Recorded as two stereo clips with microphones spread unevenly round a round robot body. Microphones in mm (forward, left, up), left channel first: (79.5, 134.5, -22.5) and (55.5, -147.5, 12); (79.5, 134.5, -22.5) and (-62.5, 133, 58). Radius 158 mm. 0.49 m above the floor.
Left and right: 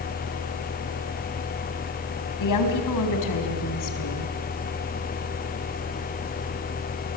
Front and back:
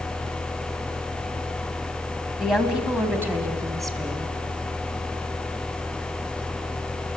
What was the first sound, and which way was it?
A woman speaking, 80° left.